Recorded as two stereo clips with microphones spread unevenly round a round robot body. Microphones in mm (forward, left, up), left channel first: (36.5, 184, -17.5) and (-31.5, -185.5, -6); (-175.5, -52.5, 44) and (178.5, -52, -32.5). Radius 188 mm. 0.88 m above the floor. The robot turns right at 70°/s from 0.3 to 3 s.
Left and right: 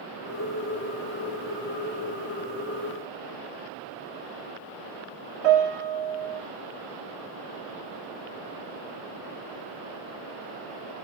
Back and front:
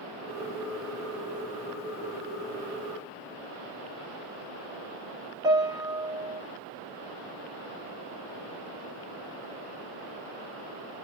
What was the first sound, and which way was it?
A piano, 75° right.